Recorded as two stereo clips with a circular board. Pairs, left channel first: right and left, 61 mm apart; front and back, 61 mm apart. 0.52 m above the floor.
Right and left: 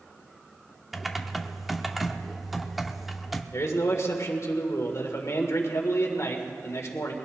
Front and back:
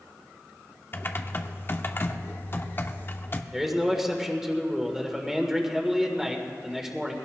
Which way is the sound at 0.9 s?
5° left.